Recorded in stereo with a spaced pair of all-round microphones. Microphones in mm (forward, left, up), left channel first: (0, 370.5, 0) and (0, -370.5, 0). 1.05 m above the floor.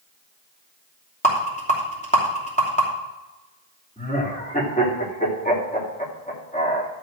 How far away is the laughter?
About 2.5 m.